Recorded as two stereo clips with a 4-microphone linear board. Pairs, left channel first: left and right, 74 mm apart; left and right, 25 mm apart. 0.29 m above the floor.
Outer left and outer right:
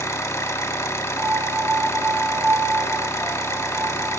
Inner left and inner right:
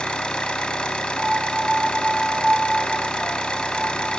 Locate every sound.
0.0 s an engine running: 45° left (ahead or behind), 0.8 m
1.2 s a piano: 20° right (ahead or behind), 2 m